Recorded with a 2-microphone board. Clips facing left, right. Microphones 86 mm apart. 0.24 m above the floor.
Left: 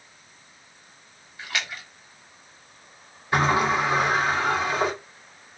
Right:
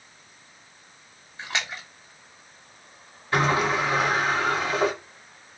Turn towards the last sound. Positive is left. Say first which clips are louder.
# left 1 dB
turn(degrees=15)  # may be behind; listen again after turning